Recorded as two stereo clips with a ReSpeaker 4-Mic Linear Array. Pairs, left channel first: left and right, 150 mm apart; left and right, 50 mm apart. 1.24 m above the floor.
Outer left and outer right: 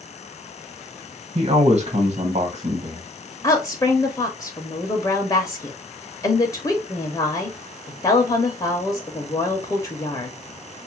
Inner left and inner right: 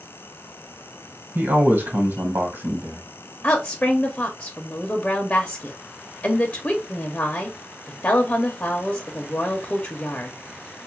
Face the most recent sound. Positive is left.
turn(degrees=25)  # may be behind; listen again after turning